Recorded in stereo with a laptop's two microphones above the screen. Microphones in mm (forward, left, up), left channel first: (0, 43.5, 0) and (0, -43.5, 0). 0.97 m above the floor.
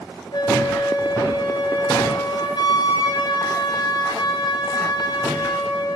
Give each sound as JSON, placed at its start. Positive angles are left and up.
{"t": 0.3, "sound": "a flute", "side_deg": 55, "distance_m": 2.5}